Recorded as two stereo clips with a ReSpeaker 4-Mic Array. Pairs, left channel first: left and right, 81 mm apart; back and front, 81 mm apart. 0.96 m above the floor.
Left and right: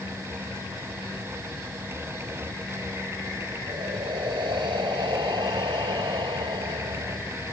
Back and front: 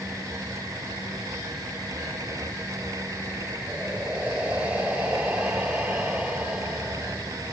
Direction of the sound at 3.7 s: 75° right.